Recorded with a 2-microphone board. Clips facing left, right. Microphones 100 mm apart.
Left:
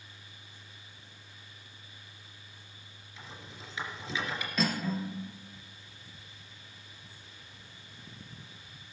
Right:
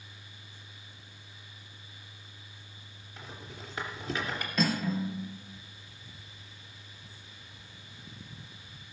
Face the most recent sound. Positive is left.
turn(degrees=0)  # may be behind; listen again after turning